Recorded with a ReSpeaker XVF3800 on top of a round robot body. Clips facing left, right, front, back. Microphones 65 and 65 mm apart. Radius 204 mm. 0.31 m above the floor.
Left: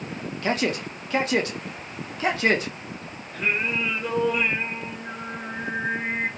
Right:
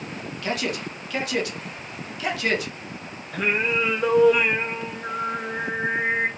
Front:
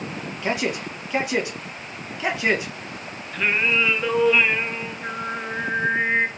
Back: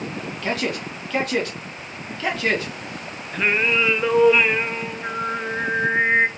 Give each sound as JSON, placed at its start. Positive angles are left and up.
{"t": 0.4, "sound": "a man speaking", "azimuth_deg": 65, "distance_m": 1.3}
{"t": 3.3, "sound": "singing", "azimuth_deg": -105, "distance_m": 0.6}